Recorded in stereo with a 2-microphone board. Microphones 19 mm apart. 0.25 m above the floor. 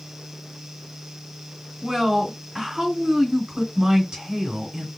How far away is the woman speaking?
About 2.5 m.